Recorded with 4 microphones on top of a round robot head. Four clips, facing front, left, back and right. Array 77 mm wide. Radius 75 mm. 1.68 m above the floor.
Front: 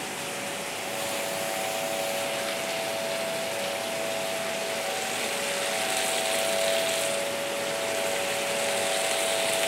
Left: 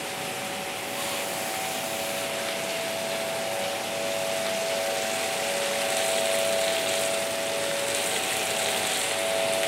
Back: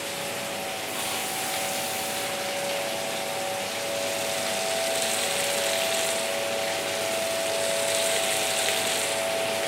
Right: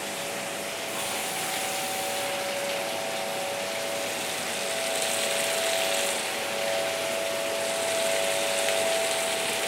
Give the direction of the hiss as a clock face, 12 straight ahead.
4 o'clock.